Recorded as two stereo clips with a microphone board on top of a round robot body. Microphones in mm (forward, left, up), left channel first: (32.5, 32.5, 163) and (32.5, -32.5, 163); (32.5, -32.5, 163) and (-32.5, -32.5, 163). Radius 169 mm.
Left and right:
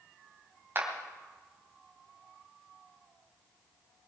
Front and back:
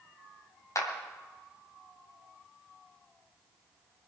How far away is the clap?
About 2.5 m.